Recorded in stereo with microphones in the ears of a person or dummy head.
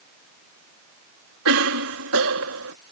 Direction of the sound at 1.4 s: 85° right.